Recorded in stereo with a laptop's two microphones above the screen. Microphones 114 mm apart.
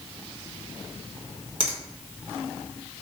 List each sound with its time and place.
1.6 s a finger snap: 55° right (ahead or behind), 1.2 m